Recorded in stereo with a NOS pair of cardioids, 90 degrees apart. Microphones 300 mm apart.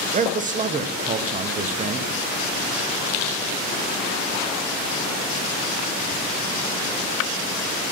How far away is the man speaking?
About 1.3 m.